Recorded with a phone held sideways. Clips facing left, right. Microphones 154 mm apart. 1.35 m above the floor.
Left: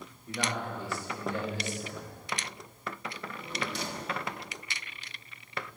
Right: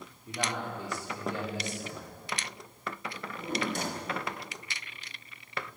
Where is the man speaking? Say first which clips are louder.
Left 1 dB; 20° right (ahead or behind), 4 m.